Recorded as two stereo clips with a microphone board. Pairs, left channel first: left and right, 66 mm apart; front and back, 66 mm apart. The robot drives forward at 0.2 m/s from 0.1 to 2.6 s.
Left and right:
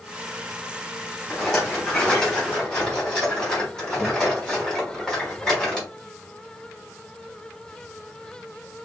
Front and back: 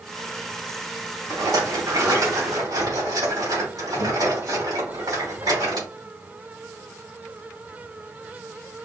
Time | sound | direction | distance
1.3 | a rattle | 170° left | 3 m